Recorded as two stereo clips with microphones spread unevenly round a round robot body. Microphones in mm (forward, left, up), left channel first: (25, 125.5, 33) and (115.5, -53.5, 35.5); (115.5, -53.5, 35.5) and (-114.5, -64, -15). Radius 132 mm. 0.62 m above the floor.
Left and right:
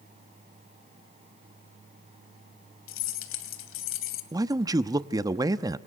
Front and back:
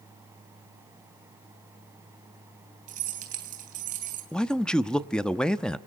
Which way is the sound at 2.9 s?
125° left.